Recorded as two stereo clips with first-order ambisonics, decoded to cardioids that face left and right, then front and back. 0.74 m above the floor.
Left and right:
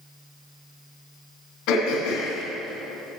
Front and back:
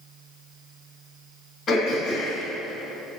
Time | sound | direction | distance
1.7 | throat clearing | 60° left | 3 m